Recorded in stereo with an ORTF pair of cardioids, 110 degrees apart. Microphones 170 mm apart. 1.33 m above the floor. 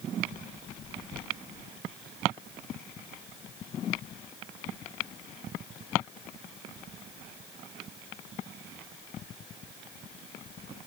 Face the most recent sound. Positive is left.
No sound to turn to.